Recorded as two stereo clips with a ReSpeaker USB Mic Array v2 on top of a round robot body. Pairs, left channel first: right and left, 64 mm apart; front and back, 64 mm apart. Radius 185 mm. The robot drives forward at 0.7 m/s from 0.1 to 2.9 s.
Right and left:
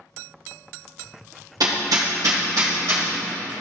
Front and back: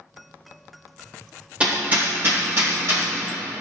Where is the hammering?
110° left, 1.3 m; by 3.1 s 135° left, 1.8 m.